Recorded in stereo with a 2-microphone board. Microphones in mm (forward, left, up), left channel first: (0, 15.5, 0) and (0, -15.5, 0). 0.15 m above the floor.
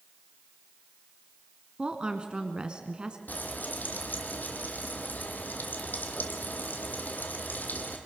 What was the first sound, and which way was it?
A woman speaking, 30° right (ahead or behind).